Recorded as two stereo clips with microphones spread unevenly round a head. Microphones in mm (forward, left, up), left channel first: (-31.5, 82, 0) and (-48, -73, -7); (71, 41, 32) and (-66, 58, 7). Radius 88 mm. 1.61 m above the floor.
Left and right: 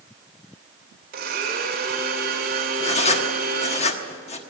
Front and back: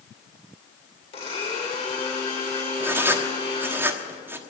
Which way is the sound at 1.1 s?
60° right.